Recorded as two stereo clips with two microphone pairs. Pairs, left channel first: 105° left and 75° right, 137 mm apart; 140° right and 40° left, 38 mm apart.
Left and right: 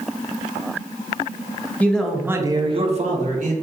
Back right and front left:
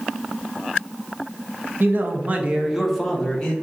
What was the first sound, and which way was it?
A man speaking, 30° left.